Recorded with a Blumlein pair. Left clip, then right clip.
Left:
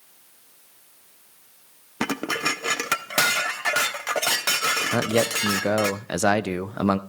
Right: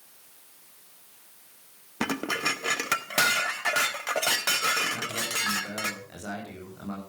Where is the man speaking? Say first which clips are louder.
Left 8 dB; 40° left, 0.7 m.